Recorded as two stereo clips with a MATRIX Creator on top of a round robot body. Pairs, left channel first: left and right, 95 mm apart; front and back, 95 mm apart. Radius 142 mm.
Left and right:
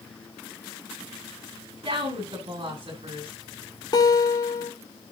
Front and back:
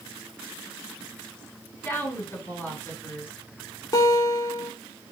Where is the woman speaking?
70° right, 5 m.